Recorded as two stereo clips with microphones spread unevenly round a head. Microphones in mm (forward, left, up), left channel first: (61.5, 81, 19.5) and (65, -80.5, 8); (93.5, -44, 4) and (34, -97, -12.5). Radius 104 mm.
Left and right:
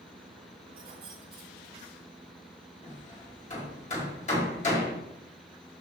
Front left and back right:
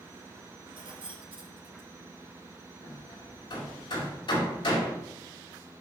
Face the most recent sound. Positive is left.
turn(degrees=50)